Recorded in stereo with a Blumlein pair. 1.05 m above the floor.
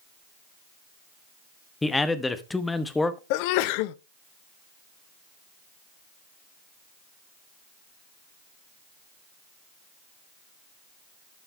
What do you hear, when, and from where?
1.8 s a man speaking: 10° left, 1.0 m
3.3 s a sneeze: 45° left, 0.5 m